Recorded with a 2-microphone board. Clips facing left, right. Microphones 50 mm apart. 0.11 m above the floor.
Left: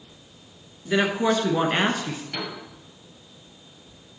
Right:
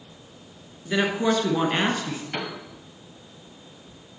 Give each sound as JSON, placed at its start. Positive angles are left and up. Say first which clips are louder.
{"t": 0.8, "sound": "a woman speaking", "louder": "left 1 dB", "side_deg": 5, "distance_m": 1.2}
{"t": 2.3, "sound": "a piano", "louder": "right 3 dB", "side_deg": -25, "distance_m": 2.0}